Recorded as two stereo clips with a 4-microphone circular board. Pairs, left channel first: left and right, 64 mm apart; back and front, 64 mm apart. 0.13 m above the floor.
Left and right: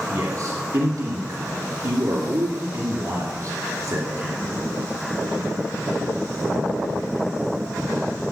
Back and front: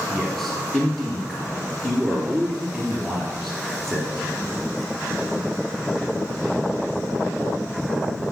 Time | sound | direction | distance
0.1 | a man speaking | 95° right | 2.5 m